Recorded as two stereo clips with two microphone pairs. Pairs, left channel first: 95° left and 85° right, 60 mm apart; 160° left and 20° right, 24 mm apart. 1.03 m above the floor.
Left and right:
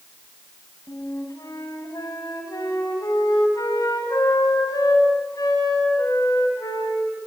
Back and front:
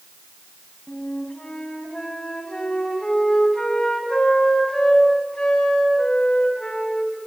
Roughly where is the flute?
Left.